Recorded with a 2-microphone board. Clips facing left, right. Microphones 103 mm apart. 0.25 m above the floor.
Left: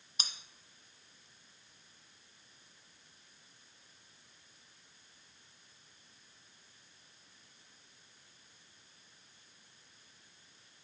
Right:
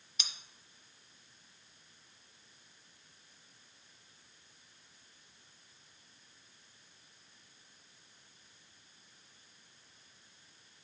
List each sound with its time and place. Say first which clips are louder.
0.2 s cutlery clinking: left 2 dB; 45° left (ahead or behind), 1.3 m